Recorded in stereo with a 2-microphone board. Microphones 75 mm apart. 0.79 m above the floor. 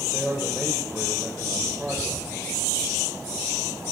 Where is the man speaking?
25° right (ahead or behind), 3 m.